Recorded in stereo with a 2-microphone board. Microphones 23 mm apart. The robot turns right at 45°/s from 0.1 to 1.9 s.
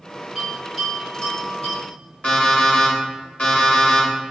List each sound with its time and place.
0.3 s a bell: 5° left (ahead or behind), 1.6 m; by 1.8 s 50° left (ahead or behind), 1.6 m
2.2 s an alarm clock: 55° left (ahead or behind), 1.2 m